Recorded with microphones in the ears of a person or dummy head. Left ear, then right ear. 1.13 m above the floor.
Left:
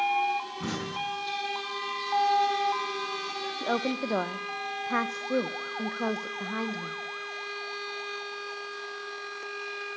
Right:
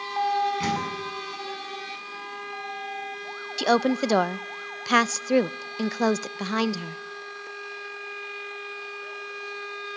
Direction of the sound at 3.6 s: 75° right (ahead or behind).